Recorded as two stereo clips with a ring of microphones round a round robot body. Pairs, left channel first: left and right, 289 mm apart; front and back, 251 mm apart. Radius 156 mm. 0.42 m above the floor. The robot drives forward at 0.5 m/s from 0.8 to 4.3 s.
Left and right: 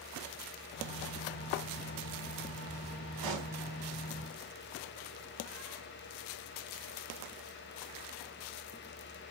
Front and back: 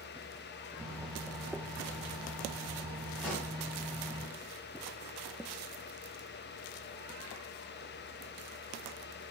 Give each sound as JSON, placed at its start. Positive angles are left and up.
{"t": 3.2, "sound": "a pop", "azimuth_deg": -85, "distance_m": 3.0}